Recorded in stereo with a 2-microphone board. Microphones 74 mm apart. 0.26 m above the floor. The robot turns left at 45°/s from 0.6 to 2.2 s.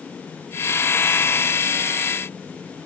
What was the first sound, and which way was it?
Only background noise.